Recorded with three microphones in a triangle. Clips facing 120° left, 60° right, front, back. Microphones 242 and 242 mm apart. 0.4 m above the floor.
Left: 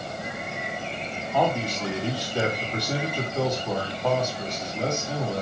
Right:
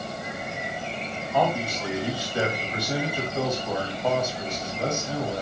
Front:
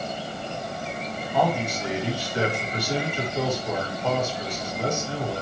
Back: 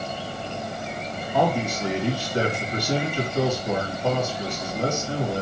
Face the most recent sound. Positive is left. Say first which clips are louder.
# even, back 2 dB
turn(degrees=-140)